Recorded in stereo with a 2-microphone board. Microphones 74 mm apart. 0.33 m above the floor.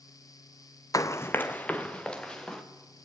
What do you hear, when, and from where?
0.9 s running footsteps: 50° left (ahead or behind), 0.7 m; by 2.6 s 10° left (ahead or behind), 2.5 m